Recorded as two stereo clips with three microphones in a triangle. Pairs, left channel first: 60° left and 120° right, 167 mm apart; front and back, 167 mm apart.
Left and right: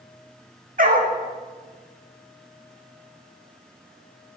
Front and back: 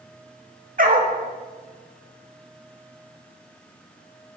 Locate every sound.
0.8 s a dog barking: 150° right, 0.7 m